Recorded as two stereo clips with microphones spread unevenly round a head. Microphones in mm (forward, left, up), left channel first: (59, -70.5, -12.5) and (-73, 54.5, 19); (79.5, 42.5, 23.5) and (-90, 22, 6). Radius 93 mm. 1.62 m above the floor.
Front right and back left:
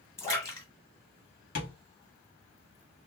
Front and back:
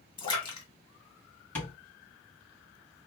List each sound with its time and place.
0.2 s a splash: 40° left, 1.8 m
1.6 s tapping: 60° right, 2.0 m